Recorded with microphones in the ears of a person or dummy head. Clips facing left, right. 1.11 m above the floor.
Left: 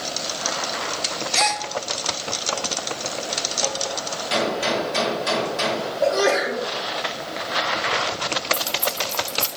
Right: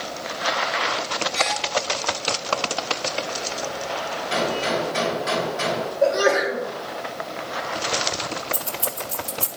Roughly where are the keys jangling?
Centre.